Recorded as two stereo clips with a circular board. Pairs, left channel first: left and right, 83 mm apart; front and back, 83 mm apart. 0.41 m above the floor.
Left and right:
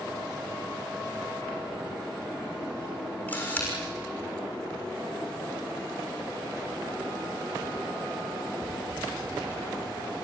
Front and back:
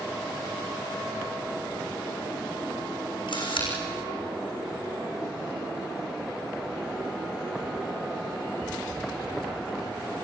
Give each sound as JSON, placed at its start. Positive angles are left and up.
{"t": 3.3, "sound": "a camera shutter", "azimuth_deg": 20, "distance_m": 6.0}